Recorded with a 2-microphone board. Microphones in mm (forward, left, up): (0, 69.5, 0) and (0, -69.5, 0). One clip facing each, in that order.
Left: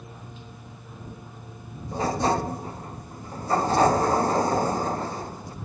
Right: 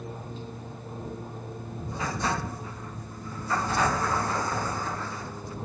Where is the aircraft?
35° right (ahead or behind).